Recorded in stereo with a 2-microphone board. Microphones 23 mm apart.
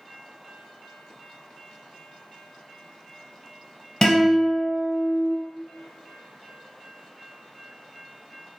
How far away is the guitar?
About 1.4 m.